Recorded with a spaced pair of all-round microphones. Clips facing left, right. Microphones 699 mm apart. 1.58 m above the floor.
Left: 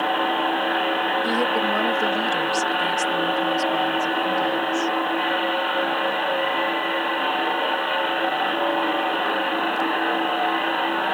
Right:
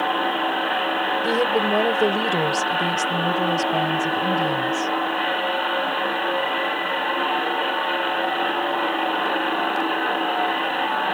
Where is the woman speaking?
65° right (ahead or behind); by 4.9 s 90° right.